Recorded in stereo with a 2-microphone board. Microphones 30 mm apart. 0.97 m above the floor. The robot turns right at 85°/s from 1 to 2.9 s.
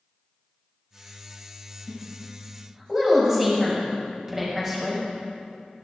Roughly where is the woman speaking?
Right.